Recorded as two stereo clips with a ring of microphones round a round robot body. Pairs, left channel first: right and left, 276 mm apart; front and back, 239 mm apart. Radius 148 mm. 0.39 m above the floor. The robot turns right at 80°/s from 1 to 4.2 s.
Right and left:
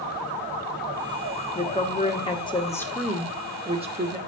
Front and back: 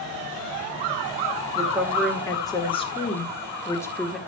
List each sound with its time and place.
1.6 s a woman speaking: 120° right, 1.3 m; by 4.2 s 90° left, 1.3 m